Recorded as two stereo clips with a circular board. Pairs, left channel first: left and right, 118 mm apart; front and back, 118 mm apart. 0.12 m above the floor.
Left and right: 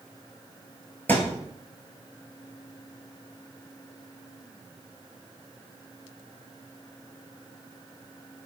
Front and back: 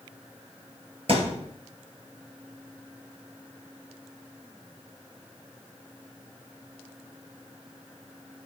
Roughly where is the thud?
Behind.